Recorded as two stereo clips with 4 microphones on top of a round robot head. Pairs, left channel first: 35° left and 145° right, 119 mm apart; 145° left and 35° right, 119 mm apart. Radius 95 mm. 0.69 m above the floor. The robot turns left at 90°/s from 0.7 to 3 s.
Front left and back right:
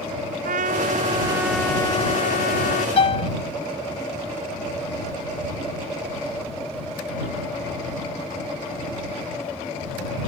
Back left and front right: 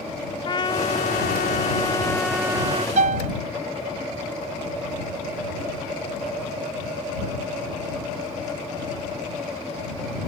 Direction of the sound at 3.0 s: 10° right.